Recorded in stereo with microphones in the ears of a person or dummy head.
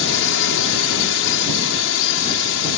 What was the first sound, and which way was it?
A drone, 65° left (ahead or behind).